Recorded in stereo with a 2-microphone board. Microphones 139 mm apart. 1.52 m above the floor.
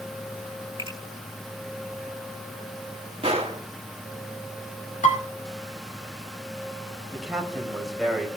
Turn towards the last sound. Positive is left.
turn(degrees=-5)  # may be behind; listen again after turning